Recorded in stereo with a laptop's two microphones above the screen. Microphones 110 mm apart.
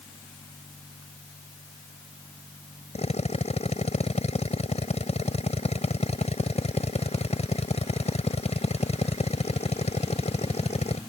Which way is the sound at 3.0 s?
85° left.